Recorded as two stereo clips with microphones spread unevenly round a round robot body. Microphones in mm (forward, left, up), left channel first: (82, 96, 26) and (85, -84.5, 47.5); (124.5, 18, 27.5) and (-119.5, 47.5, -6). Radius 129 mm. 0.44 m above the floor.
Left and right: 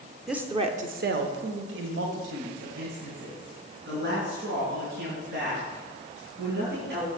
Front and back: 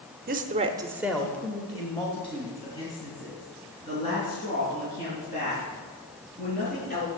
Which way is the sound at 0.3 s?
175° left.